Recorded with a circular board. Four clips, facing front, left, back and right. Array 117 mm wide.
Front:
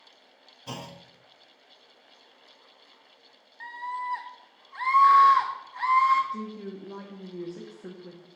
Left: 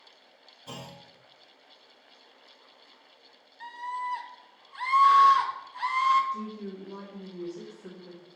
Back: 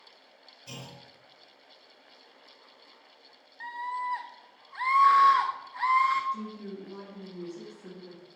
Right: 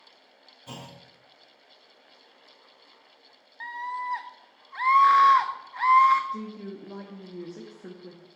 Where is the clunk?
Straight ahead, 1.0 m.